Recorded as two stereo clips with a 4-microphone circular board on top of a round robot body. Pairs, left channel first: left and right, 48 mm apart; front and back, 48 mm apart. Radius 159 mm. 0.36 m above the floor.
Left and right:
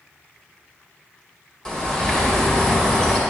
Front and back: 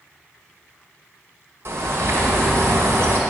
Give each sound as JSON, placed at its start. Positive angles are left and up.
{"t": 1.6, "sound": "a bird", "azimuth_deg": 165, "distance_m": 2.0}